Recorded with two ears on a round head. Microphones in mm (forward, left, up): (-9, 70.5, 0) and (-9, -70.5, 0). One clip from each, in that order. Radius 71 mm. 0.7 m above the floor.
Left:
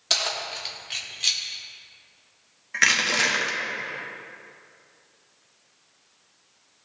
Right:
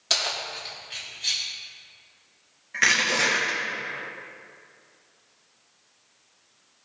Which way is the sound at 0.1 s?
Centre (ahead or behind).